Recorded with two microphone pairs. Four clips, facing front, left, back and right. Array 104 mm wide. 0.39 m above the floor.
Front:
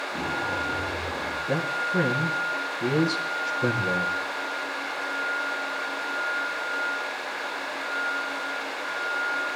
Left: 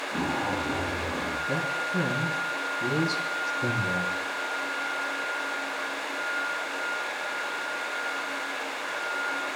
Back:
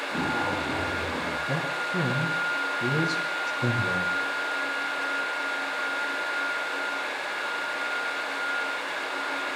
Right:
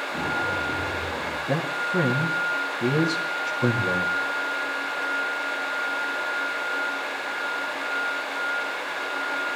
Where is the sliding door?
I don't hear a sliding door.